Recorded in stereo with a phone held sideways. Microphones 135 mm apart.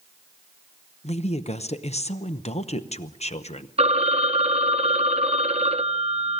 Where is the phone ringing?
50° right (ahead or behind), 0.7 m.